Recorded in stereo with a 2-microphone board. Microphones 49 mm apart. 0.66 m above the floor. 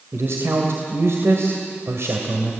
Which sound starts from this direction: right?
A man speaking, at 0.1 s.